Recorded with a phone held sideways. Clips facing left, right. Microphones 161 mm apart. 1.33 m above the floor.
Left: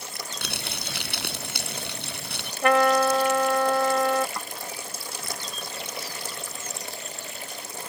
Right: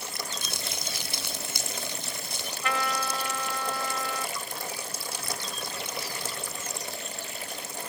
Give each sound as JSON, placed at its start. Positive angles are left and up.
{"t": 0.4, "sound": "crumpling", "side_deg": 70}
{"t": 2.6, "sound": "a trumpet", "side_deg": 65}
{"t": 4.4, "sound": "a snare drum", "side_deg": 70}